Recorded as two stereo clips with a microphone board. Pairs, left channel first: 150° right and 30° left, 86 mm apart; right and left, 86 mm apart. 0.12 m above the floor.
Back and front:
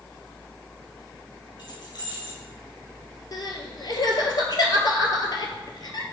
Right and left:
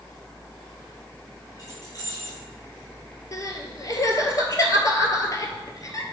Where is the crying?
130° right, 0.6 m.